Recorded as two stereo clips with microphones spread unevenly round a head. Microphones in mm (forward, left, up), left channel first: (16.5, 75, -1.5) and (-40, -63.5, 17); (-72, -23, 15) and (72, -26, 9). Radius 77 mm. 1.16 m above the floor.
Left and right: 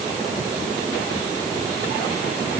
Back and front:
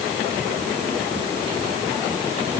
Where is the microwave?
No microwave in this recording.